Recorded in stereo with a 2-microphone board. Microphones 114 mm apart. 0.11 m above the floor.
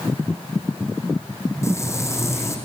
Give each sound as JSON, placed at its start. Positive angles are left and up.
{"t": 1.6, "sound": "frying", "side_deg": 25, "distance_m": 3.5}